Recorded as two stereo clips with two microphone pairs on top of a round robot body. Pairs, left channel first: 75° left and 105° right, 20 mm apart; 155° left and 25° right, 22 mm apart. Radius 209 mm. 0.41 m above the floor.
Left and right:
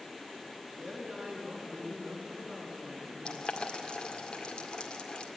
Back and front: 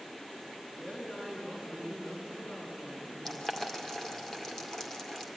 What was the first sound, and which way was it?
A woman speaking, 150° right.